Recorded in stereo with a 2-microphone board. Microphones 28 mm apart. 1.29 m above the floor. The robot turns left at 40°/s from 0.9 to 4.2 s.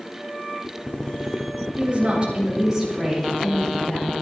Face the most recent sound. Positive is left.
turn(degrees=130)